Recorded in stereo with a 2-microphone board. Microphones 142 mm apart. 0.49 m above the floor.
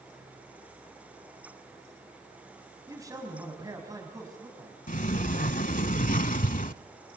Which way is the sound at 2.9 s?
25° right (ahead or behind).